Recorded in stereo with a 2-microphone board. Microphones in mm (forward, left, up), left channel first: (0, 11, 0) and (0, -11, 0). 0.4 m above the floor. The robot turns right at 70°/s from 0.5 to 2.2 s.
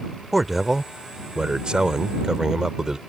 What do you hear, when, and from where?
0.3 s a man speaking: 170° right; by 3.0 s 50° right